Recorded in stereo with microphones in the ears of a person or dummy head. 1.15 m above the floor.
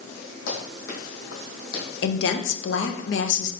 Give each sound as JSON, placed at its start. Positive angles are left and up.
{"t": 0.5, "sound": "running footsteps", "side_deg": 65, "distance_m": 2.5}
{"t": 2.0, "sound": "a woman speaking", "side_deg": 70, "distance_m": 0.7}